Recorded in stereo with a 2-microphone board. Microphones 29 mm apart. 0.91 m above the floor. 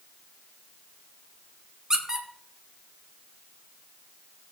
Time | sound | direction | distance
1.9 | a squeak | 20° right (ahead or behind) | 1.4 m